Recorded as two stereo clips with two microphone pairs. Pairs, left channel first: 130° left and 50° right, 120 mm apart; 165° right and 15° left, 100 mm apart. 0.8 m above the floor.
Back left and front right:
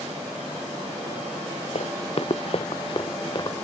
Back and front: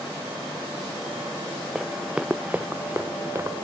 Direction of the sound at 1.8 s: 100° left.